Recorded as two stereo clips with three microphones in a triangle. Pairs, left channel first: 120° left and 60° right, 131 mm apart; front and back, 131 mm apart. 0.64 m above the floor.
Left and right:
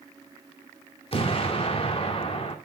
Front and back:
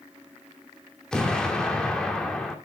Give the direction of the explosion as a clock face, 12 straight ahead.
9 o'clock.